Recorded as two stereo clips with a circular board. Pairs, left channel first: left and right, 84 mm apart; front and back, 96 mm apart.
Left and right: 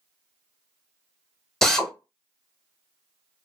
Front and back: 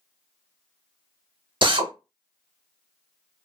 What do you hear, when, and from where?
1.6 s a drill: 175° left, 0.6 m